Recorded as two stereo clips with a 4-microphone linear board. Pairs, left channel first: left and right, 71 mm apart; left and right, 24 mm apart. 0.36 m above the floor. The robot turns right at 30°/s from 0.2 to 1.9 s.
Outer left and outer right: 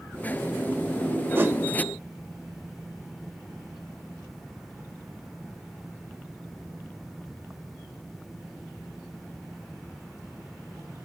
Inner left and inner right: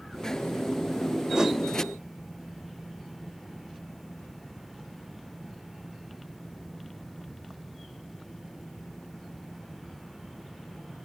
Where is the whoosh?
30° right (ahead or behind), 1.3 m.